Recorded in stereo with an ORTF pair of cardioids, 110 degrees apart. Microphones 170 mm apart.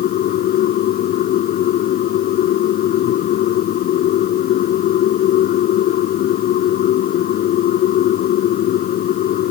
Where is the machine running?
65° left.